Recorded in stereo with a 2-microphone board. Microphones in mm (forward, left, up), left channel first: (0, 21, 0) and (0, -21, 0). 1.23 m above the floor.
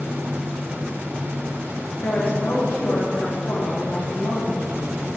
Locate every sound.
2.0 s a woman speaking: 50° left (ahead or behind), 1.2 m